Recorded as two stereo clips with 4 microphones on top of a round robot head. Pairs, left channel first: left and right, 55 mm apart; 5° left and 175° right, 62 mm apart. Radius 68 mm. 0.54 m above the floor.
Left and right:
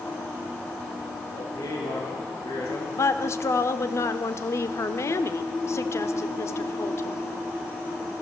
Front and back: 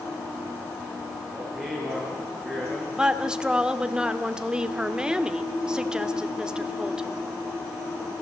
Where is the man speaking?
95° left, 9 m.